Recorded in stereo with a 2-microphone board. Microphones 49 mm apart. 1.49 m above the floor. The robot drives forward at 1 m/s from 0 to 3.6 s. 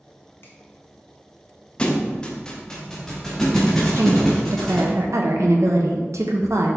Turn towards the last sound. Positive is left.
turn(degrees=-75)  # may be behind; listen again after turning